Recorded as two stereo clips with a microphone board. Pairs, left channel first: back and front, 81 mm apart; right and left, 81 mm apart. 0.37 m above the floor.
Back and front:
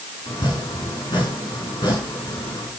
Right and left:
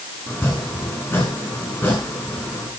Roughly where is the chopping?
Behind right.